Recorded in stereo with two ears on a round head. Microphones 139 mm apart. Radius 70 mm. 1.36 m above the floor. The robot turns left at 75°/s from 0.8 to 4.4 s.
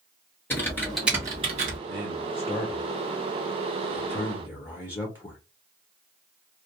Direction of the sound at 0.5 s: 15° left.